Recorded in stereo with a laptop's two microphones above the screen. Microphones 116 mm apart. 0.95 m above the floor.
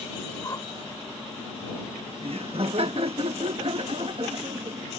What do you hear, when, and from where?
0.4 s a whoosh: 30° left (ahead or behind)
2.2 s laughter: 50° right (ahead or behind)